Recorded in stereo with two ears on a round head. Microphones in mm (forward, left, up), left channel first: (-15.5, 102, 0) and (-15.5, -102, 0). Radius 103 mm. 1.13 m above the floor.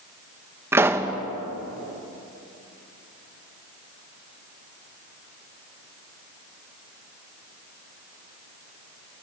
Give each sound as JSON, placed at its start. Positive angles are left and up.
{"t": 0.7, "sound": "a pop", "side_deg": -10, "distance_m": 1.4}